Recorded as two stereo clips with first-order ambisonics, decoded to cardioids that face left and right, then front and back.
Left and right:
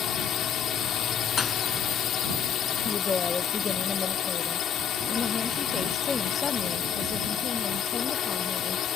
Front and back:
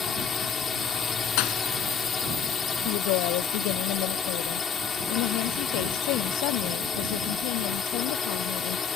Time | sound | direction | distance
0.0 | a drone | 60° left | ?
1.4 | a thud | 20° left | ?
2.9 | a woman speaking | 15° left | ?